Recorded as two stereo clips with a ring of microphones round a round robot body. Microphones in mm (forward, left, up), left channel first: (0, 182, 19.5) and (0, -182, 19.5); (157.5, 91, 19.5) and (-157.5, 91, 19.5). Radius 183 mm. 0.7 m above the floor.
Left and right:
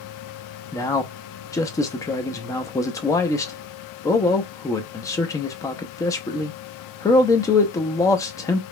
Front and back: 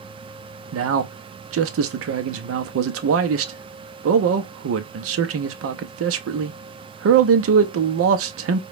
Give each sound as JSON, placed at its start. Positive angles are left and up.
{"t": 0.7, "sound": "a man speaking", "azimuth_deg": 170, "distance_m": 0.7}